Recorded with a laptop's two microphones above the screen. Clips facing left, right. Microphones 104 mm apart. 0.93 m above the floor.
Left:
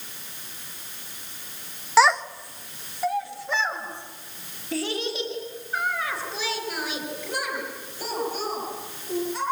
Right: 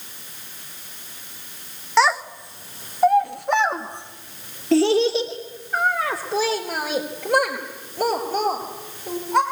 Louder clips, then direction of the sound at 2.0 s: Even; 5° left (ahead or behind).